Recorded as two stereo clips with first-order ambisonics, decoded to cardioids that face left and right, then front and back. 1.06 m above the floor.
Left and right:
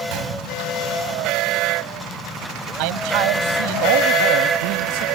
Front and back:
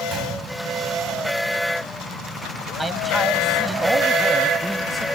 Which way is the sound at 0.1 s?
120° right.